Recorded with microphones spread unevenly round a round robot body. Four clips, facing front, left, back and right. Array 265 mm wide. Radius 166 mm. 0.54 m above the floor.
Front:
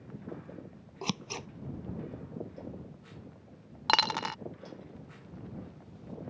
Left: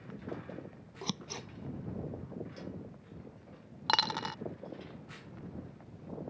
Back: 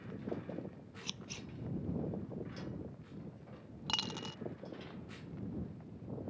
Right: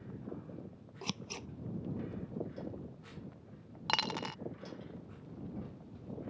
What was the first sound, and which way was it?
Scissors, 15° left.